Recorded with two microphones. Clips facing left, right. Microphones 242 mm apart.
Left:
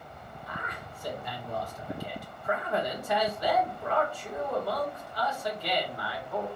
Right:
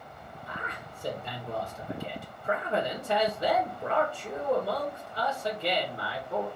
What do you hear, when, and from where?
0.5 s a man speaking: 30° right (ahead or behind), 1.9 m